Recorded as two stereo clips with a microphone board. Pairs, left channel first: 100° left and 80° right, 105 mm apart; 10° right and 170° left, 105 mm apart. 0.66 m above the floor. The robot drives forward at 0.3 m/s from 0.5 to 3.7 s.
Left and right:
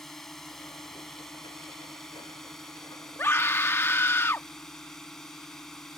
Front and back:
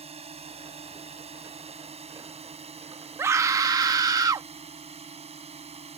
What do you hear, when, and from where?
0.0 s a drone: 175° right
3.2 s a scream: 135° left; by 4.5 s 150° left